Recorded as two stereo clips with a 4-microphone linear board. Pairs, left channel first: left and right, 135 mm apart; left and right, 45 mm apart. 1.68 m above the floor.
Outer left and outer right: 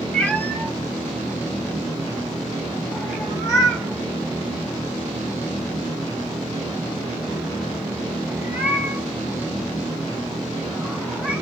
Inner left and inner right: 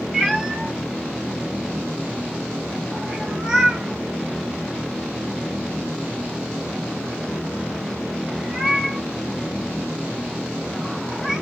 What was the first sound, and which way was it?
A cat meowing, 10° left (ahead or behind).